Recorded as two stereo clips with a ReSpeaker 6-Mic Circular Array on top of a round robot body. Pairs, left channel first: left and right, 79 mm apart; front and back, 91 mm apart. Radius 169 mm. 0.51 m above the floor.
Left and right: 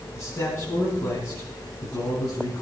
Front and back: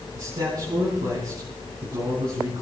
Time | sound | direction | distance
0.1 | a man speaking | 145° left | 5.5 m